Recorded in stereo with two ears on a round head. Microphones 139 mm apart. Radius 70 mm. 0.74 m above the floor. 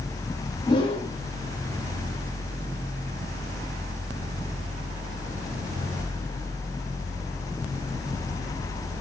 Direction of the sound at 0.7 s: 35° left (ahead or behind).